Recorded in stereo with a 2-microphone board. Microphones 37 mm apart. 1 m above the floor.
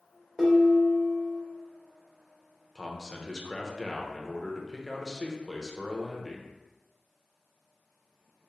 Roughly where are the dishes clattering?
Right.